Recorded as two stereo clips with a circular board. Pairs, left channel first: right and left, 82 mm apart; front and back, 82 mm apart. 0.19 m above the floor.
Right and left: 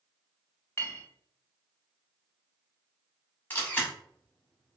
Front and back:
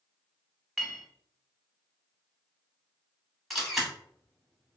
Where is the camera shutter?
85° right, 0.8 m.